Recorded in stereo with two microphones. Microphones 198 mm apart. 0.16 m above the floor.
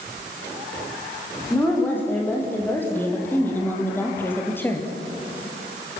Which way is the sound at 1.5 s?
10° left (ahead or behind).